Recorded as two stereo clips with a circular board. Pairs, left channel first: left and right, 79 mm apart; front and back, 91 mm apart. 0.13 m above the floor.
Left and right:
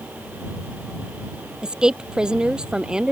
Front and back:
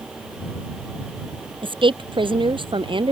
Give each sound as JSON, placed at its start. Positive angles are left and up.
{"t": 1.6, "sound": "a woman speaking", "azimuth_deg": -170}